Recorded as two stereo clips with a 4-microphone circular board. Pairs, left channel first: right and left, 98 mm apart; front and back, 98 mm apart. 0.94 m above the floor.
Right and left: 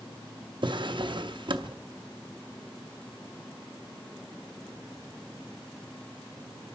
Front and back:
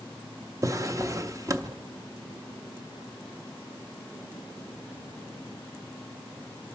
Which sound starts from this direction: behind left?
A drawer, at 0.6 s.